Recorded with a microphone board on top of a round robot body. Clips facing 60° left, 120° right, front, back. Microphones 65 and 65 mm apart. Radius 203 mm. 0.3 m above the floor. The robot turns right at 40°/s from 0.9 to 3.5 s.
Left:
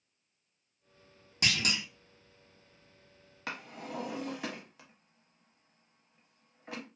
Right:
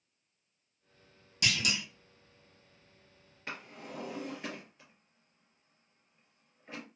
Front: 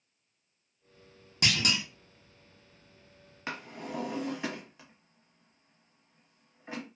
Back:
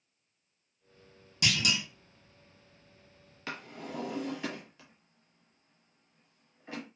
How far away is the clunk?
About 1.0 m.